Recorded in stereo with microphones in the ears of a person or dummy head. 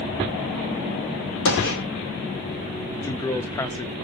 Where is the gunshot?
70° left (ahead or behind), 2.5 m.